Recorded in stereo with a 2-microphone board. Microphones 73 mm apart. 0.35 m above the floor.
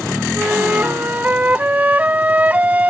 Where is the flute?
25° right (ahead or behind).